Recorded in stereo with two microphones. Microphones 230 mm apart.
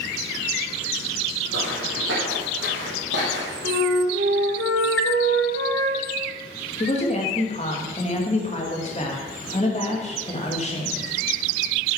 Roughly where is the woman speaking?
Left.